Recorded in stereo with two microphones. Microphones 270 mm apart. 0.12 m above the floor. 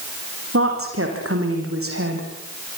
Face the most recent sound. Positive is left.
turn(degrees=-55)  # may be behind; listen again after turning